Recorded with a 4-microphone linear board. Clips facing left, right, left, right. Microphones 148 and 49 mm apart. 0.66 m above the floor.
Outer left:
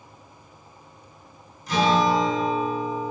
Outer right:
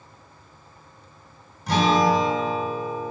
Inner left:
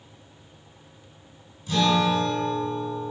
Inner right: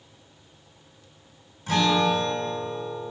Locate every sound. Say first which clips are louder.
1.7 s a guitar: outer right 1 dB, even; 70° right (ahead or behind), 3.5 m